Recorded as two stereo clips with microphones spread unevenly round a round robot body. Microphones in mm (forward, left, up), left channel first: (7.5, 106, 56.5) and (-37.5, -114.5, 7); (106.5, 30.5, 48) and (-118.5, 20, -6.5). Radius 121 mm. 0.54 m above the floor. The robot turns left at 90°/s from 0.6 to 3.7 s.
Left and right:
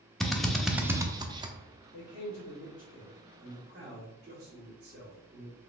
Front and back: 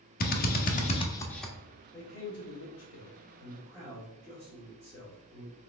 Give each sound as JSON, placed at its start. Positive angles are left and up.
{"t": 0.2, "sound": "a drill", "azimuth_deg": -30, "distance_m": 0.7}
{"t": 1.9, "sound": "a man speaking", "azimuth_deg": 80, "distance_m": 1.8}